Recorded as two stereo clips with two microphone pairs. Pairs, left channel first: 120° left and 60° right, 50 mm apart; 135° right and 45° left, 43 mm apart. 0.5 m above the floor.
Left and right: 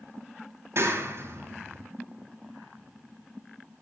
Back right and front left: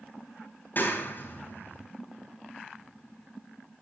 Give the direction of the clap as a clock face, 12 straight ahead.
3 o'clock.